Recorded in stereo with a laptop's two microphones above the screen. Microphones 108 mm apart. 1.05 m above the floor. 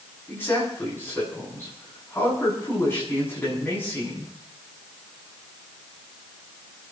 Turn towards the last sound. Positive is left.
turn(degrees=20)  # may be behind; listen again after turning